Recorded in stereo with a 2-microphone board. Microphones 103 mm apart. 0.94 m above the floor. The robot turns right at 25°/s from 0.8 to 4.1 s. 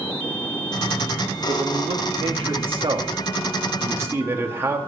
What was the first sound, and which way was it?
A man speaking, 90° right.